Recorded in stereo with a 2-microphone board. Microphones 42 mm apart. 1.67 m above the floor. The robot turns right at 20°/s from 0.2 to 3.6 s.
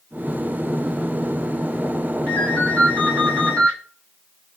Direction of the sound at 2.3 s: 55° left (ahead or behind).